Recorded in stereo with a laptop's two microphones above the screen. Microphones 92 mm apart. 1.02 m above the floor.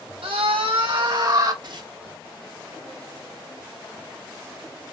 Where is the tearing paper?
50° right (ahead or behind), 0.8 m.